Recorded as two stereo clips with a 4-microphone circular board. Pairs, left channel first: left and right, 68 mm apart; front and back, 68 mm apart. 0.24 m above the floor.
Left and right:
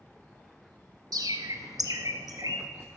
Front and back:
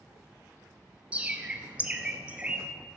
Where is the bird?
110° right, 1.0 m.